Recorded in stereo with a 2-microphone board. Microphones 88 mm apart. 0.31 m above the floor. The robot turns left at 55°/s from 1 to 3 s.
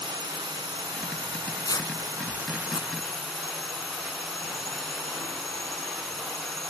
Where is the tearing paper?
25° left (ahead or behind); by 2.9 s 65° left (ahead or behind).